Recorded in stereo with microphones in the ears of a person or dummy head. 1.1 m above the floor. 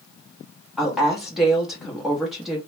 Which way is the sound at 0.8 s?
5° right (ahead or behind).